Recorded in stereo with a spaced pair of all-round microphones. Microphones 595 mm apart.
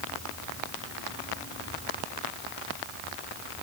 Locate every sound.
Only background noise.